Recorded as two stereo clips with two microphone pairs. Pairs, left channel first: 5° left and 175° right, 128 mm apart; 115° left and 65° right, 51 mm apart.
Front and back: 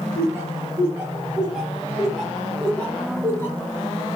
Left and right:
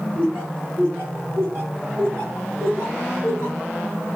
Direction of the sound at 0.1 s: 105° right.